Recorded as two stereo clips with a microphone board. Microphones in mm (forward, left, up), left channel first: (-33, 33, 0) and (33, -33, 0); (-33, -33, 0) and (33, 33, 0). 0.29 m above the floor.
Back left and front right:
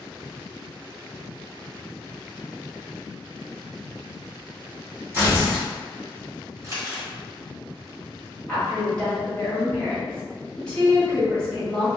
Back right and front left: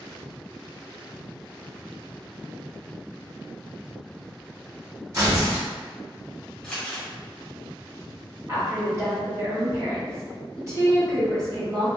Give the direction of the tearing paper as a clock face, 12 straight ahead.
12 o'clock.